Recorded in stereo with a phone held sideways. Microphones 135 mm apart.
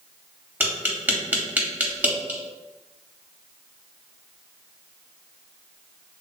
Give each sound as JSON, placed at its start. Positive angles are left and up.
{"t": 0.6, "sound": "tapping", "side_deg": -15, "distance_m": 0.7}